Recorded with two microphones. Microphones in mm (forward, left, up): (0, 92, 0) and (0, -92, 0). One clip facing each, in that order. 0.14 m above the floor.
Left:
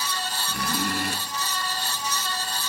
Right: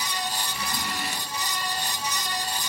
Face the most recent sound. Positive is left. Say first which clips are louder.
# left 5 dB
turn(degrees=55)  # may be behind; listen again after turning